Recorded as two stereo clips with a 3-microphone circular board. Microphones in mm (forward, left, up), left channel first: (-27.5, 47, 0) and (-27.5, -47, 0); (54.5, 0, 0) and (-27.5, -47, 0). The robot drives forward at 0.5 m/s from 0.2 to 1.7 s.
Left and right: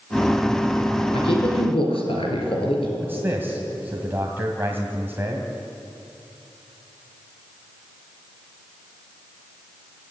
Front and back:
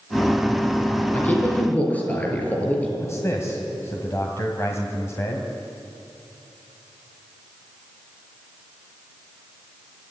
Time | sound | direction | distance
1.1 | a man speaking | 100° left | 5.5 m
3.0 | a man speaking | 25° right | 2 m